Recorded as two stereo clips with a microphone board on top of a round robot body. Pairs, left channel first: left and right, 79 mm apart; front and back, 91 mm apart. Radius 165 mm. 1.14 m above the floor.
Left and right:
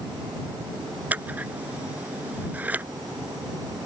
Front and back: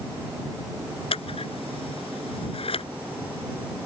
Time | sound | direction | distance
1.1 | scissors | 20° right | ?